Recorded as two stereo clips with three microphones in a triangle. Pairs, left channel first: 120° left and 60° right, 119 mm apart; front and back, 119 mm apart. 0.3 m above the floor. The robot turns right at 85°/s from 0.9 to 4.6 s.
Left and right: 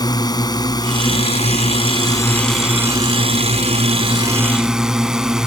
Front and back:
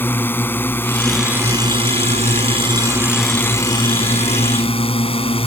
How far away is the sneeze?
No sneeze in this recording.